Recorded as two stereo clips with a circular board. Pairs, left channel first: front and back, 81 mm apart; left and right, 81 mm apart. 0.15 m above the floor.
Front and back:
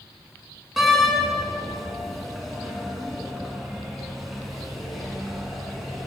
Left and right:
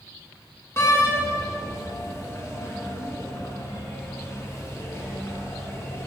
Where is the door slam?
95° left, 1.2 m.